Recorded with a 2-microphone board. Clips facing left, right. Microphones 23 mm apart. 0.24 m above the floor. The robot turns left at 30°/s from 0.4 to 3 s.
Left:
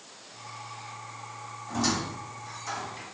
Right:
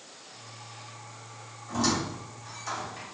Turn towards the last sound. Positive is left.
turn(degrees=-30)  # may be behind; listen again after turning